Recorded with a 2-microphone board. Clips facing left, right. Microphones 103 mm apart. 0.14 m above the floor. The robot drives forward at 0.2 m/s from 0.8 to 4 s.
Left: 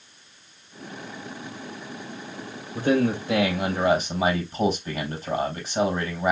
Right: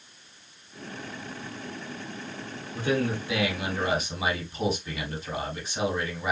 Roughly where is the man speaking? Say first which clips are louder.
Left 5 dB; left.